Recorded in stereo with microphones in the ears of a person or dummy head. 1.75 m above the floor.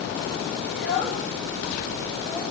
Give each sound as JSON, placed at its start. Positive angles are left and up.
{"t": 0.7, "sound": "a child speaking", "side_deg": 0, "distance_m": 6.0}